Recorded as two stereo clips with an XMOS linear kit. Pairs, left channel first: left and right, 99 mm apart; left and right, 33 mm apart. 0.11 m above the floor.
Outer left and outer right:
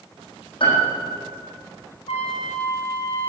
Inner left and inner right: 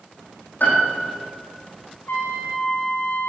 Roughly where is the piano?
Left.